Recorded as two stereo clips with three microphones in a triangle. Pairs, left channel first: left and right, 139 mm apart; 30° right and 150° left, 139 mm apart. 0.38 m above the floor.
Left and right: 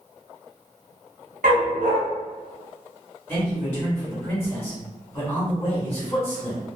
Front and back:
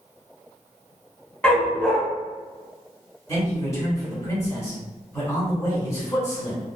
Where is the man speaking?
20° left, 1.6 m.